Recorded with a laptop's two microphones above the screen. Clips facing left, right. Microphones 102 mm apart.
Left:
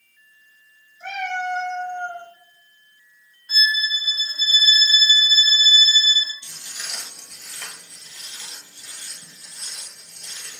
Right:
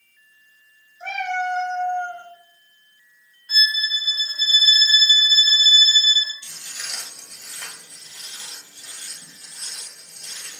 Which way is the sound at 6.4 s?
25° left (ahead or behind).